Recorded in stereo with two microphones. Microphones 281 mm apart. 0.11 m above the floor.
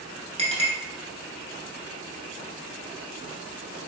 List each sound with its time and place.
0.4 s a clink: 25° right (ahead or behind), 0.8 m